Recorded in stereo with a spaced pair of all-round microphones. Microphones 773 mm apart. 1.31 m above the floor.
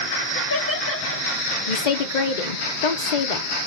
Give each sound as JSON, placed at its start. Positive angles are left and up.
{"t": 0.3, "sound": "laughter", "side_deg": 15, "distance_m": 2.0}
{"t": 1.7, "sound": "a woman speaking", "side_deg": 65, "distance_m": 0.9}